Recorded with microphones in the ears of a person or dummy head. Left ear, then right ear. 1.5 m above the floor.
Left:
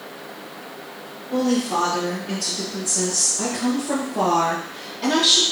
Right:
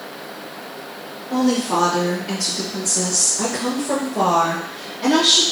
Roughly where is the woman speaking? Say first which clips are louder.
Right 2 dB; right.